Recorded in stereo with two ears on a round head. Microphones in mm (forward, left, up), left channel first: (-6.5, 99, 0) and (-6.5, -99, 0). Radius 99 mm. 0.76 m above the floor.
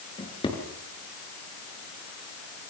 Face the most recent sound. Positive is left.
turn(degrees=20)  # may be behind; listen again after turning